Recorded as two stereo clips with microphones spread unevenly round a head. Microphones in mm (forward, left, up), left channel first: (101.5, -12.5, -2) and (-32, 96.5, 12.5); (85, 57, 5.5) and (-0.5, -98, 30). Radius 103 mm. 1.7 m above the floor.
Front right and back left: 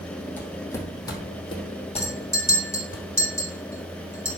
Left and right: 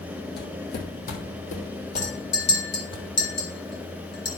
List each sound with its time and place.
0.4 s footsteps: 40° left, 3 m; by 3.0 s straight ahead, 3.5 m
2.0 s a clink: 35° left, 3 m